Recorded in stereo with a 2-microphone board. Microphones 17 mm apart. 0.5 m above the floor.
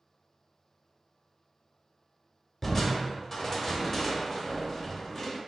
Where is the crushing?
10° left (ahead or behind), 0.8 m.